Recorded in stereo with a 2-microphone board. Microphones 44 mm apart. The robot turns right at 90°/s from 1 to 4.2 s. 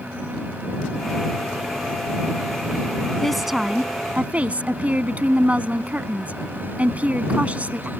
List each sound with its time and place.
3.2 s a woman speaking: 165° left; by 7.9 s 105° right